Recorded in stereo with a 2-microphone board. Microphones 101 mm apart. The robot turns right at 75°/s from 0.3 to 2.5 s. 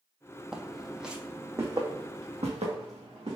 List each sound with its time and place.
0.5 s footsteps: 5° right (ahead or behind), 0.5 m; by 3.4 s 80° right, 2.5 m